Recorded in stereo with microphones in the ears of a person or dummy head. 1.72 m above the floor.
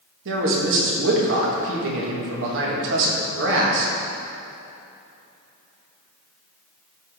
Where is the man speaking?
70° right (ahead or behind), 2 m.